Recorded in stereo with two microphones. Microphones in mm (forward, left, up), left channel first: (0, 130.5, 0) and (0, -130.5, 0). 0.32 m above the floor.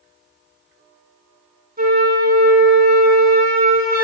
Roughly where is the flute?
Right.